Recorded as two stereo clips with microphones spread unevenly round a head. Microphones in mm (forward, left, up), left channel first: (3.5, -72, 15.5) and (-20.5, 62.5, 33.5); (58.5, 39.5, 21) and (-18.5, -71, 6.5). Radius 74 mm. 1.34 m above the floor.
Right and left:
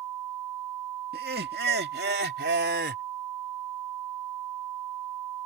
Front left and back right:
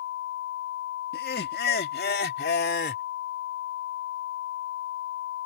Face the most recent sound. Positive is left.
turn(degrees=85)